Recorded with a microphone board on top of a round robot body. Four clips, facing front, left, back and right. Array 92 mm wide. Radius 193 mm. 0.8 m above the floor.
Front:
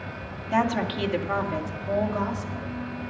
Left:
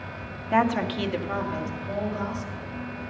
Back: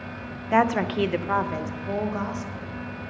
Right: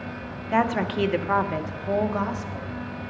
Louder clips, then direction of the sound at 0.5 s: Even, back 3 dB; straight behind.